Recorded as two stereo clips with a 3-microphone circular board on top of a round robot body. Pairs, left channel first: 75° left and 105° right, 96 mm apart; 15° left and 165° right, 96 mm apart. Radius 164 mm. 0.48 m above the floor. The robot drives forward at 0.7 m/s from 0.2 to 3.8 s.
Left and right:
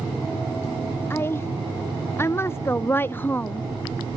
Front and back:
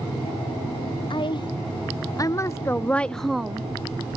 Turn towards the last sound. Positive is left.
turn(degrees=140)